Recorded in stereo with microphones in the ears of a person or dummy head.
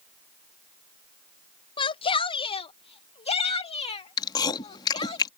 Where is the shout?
20° left (ahead or behind); by 5.2 s 25° left (ahead or behind).